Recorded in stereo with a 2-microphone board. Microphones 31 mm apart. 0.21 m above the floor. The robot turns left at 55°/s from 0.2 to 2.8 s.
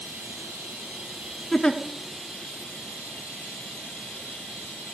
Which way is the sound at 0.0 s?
90° right.